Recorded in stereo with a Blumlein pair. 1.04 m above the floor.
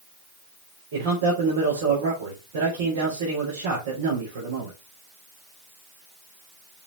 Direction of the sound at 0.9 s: 60° right.